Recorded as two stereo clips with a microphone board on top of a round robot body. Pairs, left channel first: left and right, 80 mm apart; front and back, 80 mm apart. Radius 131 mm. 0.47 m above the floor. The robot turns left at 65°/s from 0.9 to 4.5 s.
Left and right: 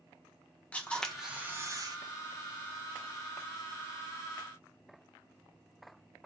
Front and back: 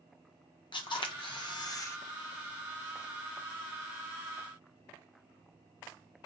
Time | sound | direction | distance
0.7 | a camera shutter | 15° left | 0.8 m